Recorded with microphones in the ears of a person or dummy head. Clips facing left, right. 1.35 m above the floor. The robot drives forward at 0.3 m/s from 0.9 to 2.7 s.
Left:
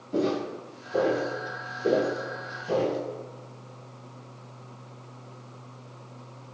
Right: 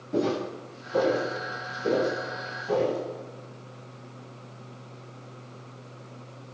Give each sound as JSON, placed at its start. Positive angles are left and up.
{"t": 0.1, "sound": "footsteps", "side_deg": -10, "distance_m": 1.4}